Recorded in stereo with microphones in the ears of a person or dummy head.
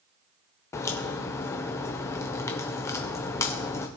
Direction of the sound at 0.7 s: 20° left (ahead or behind).